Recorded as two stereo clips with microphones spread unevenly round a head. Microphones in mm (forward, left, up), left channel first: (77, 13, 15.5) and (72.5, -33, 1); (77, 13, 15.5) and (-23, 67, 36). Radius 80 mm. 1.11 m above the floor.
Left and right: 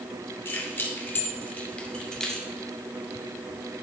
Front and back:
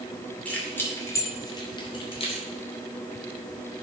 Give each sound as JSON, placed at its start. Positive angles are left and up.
{"t": 0.5, "sound": "keys jangling", "azimuth_deg": 50, "distance_m": 2.0}